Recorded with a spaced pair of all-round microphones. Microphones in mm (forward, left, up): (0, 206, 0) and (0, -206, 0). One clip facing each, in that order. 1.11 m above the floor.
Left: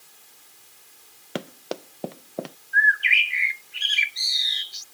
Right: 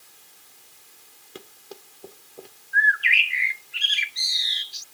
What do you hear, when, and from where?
1.4 s running footsteps: 80° left; by 2.6 s 85° left
2.7 s a bird: 15° left (ahead or behind)